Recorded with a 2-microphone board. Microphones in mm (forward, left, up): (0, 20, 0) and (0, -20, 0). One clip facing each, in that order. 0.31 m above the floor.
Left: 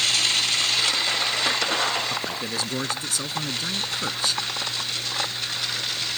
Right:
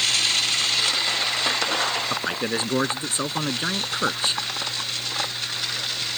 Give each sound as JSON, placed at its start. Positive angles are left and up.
{"t": 2.1, "sound": "a man speaking", "side_deg": -30}